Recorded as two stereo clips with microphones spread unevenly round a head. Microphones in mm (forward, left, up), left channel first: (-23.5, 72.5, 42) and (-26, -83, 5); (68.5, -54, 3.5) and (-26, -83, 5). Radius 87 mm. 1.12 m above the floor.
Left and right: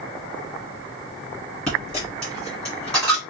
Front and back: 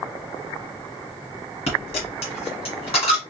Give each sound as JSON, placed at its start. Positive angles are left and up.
{"t": 1.7, "sound": "a dropped coin", "azimuth_deg": 10, "distance_m": 2.0}